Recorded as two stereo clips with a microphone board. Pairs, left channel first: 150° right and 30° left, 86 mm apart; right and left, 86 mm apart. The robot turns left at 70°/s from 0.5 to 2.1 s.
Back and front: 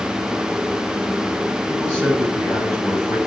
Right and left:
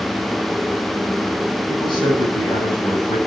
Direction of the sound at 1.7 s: 70° right.